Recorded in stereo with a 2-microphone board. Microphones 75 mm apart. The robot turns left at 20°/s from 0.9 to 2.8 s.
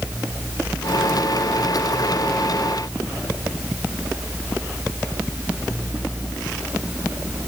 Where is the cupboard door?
No cupboard door in this recording.